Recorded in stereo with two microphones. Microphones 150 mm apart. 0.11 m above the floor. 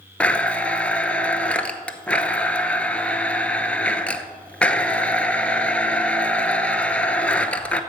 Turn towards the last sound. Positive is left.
turn(degrees=10)  # may be behind; listen again after turning